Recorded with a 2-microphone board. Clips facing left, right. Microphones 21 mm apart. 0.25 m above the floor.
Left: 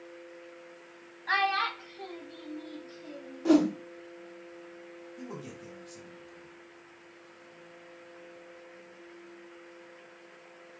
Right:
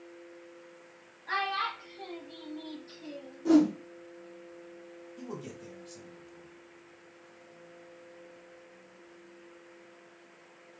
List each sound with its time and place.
1.3 s a child speaking: 35° left (ahead or behind), 0.8 m; by 3.4 s 60° right (ahead or behind), 1.0 m
3.5 s a whoosh: 40° left (ahead or behind), 1.1 m
5.2 s a man speaking: 15° right (ahead or behind), 1.2 m